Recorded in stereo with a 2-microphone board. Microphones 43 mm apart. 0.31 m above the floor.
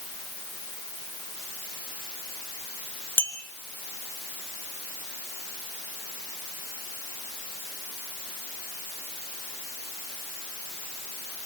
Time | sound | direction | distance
3.2 | a clink | 60° left (ahead or behind) | 2.5 m